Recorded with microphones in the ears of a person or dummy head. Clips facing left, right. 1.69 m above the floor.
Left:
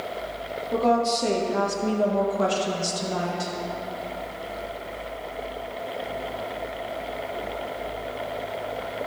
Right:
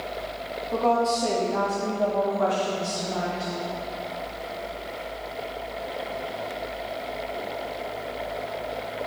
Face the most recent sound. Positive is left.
turn(degrees=70)  # may be behind; listen again after turning